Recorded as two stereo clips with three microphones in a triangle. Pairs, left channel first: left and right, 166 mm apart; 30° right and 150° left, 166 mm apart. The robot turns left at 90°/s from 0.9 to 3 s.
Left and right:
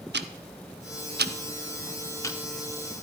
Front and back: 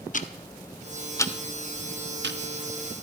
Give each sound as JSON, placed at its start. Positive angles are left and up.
{"t": 0.1, "sound": "ticking", "azimuth_deg": -75, "distance_m": 0.6}